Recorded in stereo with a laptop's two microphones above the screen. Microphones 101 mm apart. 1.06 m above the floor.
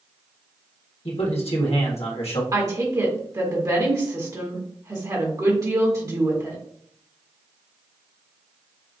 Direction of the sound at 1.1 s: 80° left.